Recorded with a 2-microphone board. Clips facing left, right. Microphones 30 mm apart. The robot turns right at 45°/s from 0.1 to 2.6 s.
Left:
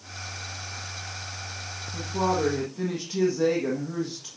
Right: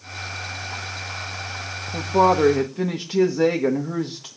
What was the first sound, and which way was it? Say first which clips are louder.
A woman speaking: right 9 dB; 65° right.